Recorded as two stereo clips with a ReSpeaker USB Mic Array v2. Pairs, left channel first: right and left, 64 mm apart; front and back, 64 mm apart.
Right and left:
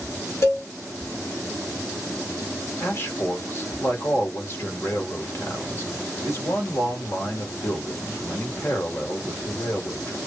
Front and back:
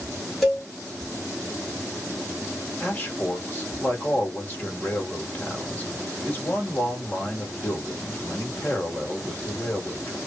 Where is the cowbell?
90° right, 1.8 m.